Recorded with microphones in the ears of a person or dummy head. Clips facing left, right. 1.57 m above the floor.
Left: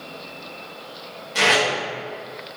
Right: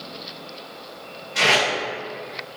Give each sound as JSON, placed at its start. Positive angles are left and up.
{"t": 1.4, "sound": "tape being pulled", "side_deg": 60, "distance_m": 1.2}